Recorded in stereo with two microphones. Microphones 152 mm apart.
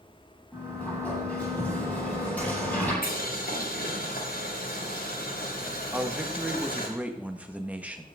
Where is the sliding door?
10° left (ahead or behind), 9.5 m.